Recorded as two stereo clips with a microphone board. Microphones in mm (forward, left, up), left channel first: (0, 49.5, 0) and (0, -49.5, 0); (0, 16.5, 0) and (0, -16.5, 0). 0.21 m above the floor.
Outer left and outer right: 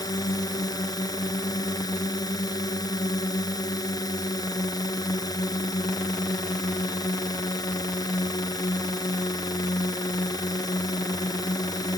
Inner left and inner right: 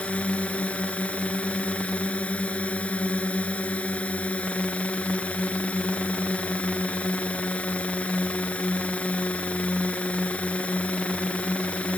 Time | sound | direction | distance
0.0 | a drone | 40° left (ahead or behind) | ?